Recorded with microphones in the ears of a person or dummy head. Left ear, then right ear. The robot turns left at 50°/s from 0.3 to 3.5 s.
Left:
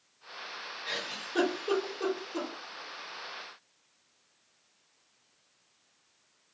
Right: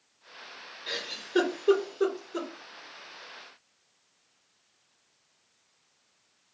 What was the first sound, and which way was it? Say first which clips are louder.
A giggle: right 2 dB; 15° right (ahead or behind).